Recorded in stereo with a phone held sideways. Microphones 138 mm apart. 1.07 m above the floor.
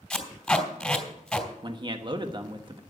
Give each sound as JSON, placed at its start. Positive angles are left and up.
{"t": 0.1, "sound": "tape being pulled", "side_deg": 5, "distance_m": 3.0}
{"t": 1.6, "sound": "a man speaking", "side_deg": -35, "distance_m": 1.2}